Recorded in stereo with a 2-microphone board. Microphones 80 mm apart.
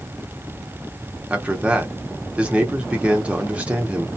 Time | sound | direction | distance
1.3 | a man speaking | 15° right (ahead or behind) | 0.7 m